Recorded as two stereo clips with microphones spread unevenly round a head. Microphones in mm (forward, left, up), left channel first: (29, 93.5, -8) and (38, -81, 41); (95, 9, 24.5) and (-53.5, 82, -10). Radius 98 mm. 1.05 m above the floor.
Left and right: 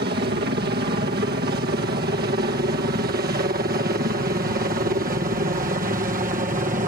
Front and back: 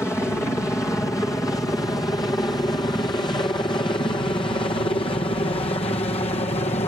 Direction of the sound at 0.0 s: 110° right.